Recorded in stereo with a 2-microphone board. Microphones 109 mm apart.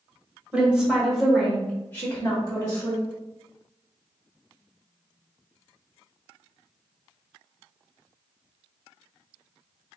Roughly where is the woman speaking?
Centre.